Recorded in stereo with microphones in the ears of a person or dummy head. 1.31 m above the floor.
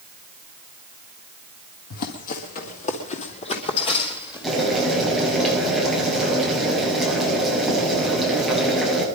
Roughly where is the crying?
I don't hear crying.